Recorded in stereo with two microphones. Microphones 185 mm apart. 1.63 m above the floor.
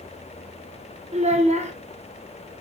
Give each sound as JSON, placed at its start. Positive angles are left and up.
{"t": 1.1, "sound": "a child speaking", "side_deg": -35, "distance_m": 1.3}